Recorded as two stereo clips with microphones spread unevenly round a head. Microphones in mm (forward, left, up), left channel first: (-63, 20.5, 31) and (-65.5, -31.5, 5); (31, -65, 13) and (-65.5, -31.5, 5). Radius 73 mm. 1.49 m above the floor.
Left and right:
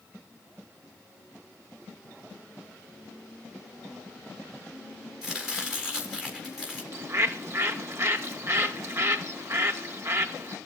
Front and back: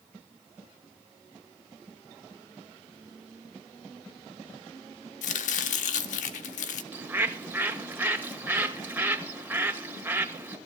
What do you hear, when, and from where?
5.2 s chopping: 5° right, 0.9 m
6.9 s a bird: 125° right, 2 m